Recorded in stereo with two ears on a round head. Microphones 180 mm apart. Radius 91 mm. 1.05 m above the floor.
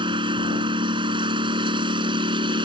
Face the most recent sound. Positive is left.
turn(degrees=-25)  # may be behind; listen again after turning